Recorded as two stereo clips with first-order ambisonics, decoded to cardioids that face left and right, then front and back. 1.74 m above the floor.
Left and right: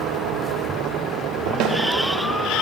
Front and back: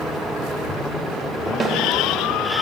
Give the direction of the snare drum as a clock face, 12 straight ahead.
4 o'clock.